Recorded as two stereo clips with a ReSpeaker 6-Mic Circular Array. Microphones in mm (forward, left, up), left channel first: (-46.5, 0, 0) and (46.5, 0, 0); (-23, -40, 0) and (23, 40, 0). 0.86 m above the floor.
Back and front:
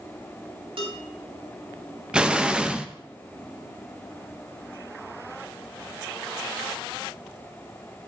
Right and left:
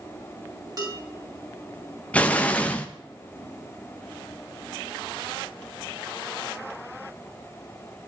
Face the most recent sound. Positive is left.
turn(degrees=-70)